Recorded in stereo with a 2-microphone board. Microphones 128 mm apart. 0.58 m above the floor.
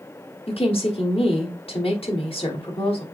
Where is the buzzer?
I don't hear a buzzer.